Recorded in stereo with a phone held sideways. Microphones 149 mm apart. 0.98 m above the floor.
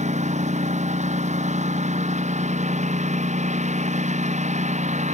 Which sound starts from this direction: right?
A lawn mower, at 0.0 s.